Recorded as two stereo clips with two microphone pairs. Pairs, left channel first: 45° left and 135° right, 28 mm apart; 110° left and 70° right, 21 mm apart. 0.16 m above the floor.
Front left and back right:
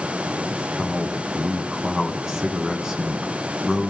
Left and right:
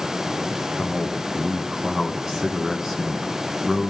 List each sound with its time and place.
0.5 s a man speaking: 100° right, 1.4 m